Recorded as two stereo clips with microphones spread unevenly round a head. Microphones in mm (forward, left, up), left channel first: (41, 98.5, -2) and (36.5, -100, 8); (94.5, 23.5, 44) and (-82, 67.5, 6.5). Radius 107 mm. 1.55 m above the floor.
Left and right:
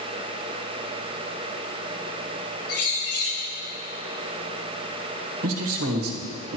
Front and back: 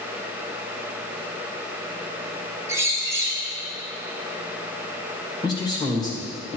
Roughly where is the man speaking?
Right.